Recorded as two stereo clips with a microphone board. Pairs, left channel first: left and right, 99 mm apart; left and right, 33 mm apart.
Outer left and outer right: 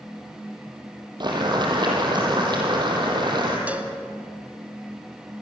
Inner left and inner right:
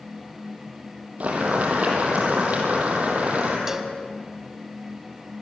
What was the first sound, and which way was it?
Boiling, 50° right (ahead or behind).